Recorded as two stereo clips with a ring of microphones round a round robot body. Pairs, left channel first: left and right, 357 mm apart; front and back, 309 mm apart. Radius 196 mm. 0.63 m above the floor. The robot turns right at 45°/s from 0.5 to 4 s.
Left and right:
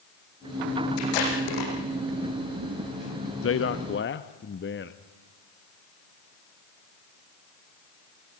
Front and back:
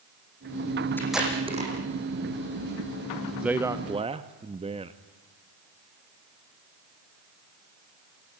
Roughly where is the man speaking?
Left.